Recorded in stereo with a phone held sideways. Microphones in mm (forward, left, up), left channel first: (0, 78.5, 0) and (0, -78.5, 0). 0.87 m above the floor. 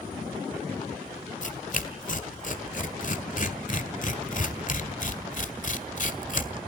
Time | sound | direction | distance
1.4 | tearing paper | 55° left (ahead or behind) | 1.6 m